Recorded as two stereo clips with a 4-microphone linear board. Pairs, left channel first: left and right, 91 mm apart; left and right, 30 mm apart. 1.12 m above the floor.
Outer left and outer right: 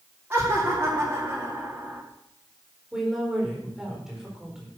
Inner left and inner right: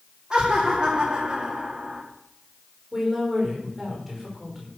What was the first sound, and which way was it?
Laughter, 20° right (ahead or behind).